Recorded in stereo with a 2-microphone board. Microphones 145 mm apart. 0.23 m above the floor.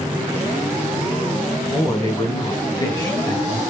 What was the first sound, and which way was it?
A man speaking, 30° left (ahead or behind).